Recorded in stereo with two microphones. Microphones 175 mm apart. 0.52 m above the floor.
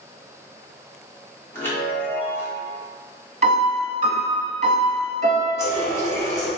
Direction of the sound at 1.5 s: 15° left (ahead or behind).